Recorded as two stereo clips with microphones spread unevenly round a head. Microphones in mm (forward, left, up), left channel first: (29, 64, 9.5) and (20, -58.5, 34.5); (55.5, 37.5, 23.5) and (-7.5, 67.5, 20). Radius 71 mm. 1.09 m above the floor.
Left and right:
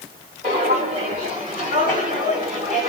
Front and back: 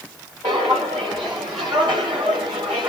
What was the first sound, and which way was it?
Footsteps, 140° right.